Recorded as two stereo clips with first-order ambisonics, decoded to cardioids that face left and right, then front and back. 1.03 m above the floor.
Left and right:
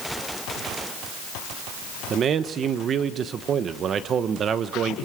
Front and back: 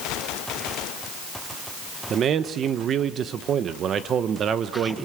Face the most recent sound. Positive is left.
turn(degrees=-135)